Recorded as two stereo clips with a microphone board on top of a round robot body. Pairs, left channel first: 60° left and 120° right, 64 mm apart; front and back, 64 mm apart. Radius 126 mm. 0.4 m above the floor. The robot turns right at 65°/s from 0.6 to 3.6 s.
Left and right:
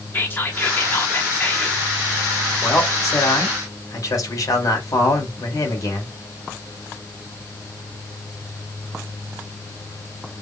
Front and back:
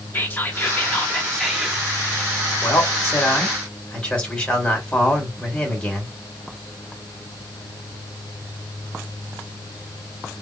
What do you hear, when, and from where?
0.1 s whispering: 30° left, 1.5 m; by 1.8 s 110° left, 1.5 m
2.6 s a man speaking: 10° left, 2 m; by 6.2 s 70° left, 2 m